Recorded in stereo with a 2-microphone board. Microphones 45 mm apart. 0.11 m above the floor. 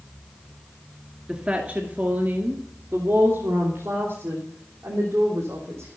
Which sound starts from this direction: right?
A woman speaking, at 1.3 s.